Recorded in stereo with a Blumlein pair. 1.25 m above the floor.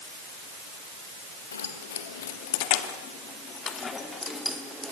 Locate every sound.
1.5 s keys jangling: 70° left, 3 m; by 4.9 s 5° right, 2.5 m